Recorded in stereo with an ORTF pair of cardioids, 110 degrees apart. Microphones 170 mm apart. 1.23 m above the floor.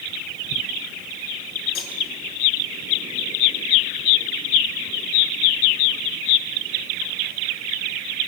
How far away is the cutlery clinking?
About 8 m.